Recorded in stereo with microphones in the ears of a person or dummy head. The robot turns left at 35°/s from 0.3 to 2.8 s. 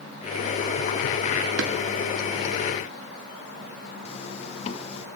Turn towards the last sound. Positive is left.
turn(degrees=40)  # may be behind; listen again after turning